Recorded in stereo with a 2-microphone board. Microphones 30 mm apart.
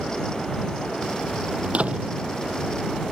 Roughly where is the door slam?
Right.